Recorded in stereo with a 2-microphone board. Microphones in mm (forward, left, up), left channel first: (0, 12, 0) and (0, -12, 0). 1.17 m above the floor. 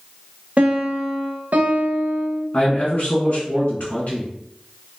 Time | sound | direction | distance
0.6 | a piano | 70° right (ahead or behind) | 0.6 m
2.5 | a man speaking | 55° left (ahead or behind) | 1.8 m